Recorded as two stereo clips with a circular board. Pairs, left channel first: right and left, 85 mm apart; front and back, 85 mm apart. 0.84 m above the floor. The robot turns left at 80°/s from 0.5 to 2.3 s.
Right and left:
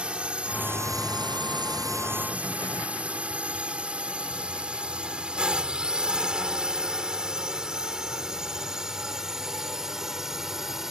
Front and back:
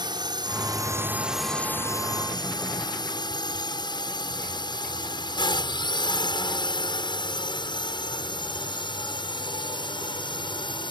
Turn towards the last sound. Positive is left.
turn(degrees=5)